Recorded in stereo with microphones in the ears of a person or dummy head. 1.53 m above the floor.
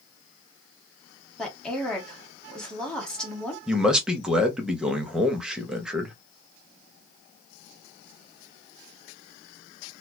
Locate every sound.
1.4 s a woman speaking: centre (ahead or behind), 1.2 m
3.7 s a man speaking: 5° right (ahead or behind), 0.6 m